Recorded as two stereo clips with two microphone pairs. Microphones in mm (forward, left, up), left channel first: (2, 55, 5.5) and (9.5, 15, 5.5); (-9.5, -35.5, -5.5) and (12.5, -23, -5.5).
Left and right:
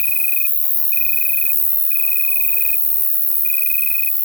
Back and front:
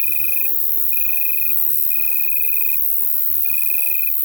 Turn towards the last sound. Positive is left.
turn(degrees=20)